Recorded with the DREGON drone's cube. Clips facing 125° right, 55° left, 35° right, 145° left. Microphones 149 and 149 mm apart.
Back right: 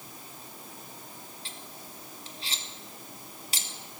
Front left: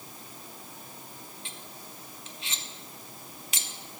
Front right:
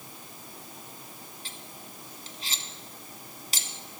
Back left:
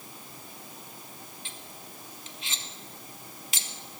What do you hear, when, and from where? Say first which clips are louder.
1.4 s cutlery clinking: even, even; 75° right, 0.9 m